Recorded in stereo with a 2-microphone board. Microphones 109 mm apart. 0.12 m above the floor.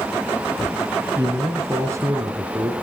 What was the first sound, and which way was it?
A man speaking, 30° right (ahead or behind).